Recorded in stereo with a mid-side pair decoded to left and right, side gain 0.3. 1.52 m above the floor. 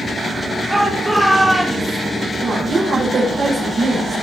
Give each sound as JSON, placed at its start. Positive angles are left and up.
{"t": 0.7, "sound": "a shout", "azimuth_deg": -25, "distance_m": 2.5}
{"t": 2.4, "sound": "a woman speaking", "azimuth_deg": -65, "distance_m": 7.5}